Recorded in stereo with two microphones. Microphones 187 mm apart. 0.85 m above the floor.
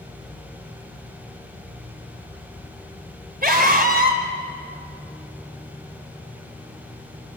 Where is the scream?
55° right (ahead or behind), 4 m.